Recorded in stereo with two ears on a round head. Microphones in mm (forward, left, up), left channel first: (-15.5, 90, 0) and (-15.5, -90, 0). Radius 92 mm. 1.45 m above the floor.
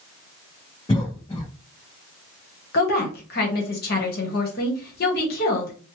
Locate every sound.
0.9 s a cough: 20° left (ahead or behind), 0.8 m
2.7 s a woman speaking: 45° left (ahead or behind), 1.1 m